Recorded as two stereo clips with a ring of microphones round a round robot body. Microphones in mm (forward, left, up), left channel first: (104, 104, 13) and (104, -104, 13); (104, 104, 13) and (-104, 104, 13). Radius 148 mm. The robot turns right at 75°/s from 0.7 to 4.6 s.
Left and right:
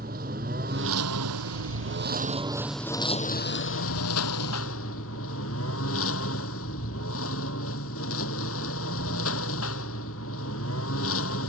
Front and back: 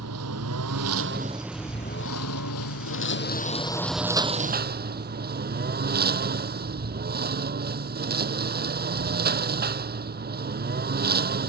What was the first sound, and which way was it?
A lawn mower, 155° right.